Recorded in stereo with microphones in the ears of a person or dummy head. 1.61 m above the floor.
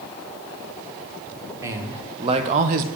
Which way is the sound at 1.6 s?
15° right (ahead or behind).